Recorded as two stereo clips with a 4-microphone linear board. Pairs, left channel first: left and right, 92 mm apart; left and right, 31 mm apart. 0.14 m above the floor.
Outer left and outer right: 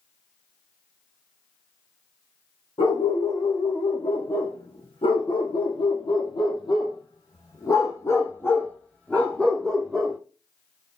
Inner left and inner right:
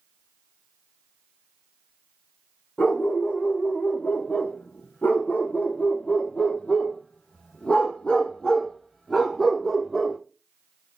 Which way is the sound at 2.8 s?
85° left.